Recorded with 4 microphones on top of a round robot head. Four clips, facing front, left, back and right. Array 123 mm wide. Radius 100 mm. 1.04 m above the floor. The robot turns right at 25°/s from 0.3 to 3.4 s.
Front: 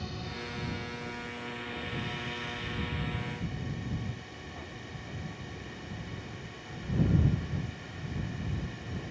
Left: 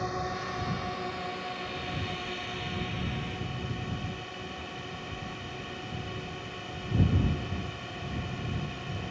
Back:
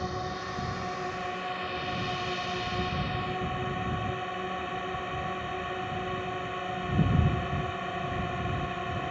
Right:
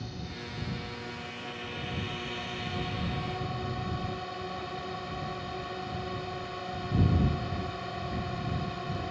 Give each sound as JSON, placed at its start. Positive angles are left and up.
{"t": 0.0, "sound": "a drone", "azimuth_deg": 130}